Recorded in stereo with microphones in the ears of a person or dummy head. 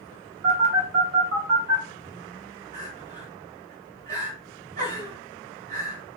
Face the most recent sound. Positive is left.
turn(degrees=-65)  # may be behind; listen again after turning